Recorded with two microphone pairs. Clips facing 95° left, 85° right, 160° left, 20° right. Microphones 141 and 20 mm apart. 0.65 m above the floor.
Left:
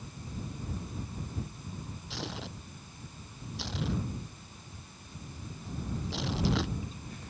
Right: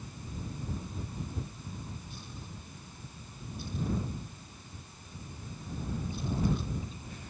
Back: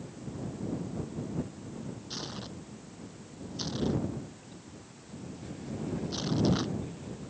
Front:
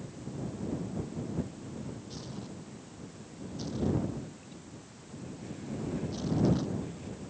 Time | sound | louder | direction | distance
2.1 | tearing paper | left 7 dB, back 3 dB | 110° left | ?